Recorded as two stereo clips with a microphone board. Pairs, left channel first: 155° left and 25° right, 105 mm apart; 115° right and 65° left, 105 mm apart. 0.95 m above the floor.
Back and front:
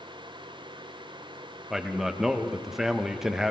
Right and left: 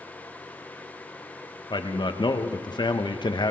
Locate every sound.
1.7 s a man speaking: 105° right, 0.8 m